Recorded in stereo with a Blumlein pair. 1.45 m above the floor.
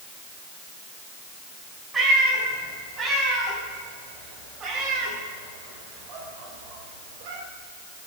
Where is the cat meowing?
15° right, 5.5 m; by 7.4 s 55° right, 1.8 m.